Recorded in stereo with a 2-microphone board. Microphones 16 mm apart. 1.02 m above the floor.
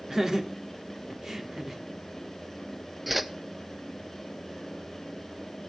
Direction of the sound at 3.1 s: 10° right (ahead or behind).